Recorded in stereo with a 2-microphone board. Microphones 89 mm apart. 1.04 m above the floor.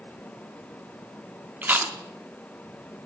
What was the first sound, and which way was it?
Chewing, 20° right (ahead or behind).